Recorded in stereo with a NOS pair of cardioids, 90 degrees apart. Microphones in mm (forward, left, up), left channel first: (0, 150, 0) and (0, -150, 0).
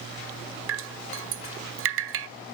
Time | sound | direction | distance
0.7 | dripping | 50° right | 0.5 m